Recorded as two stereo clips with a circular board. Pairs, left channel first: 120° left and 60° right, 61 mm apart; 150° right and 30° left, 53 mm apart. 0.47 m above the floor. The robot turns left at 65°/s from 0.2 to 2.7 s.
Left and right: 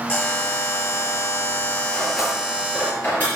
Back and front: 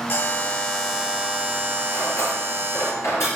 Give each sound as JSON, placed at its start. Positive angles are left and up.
{"t": 0.1, "sound": "a buzzer", "azimuth_deg": 165, "distance_m": 1.8}
{"t": 1.9, "sound": "cutlery clinking", "azimuth_deg": -125, "distance_m": 5.0}